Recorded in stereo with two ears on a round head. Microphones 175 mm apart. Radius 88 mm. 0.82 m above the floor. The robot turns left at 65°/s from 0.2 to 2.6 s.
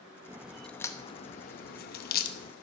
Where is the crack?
15° right (ahead or behind), 0.9 m; by 2.5 s 40° left (ahead or behind), 0.9 m.